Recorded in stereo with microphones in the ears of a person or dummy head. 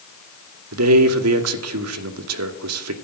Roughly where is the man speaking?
Right.